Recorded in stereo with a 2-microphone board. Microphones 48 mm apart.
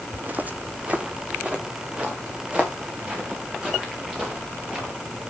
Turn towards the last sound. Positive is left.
turn(degrees=-20)  # may be behind; listen again after turning